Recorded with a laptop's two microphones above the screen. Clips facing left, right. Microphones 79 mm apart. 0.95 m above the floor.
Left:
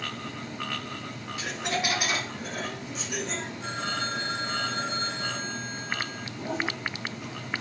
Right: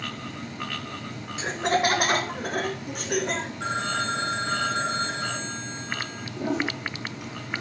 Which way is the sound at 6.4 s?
80° right.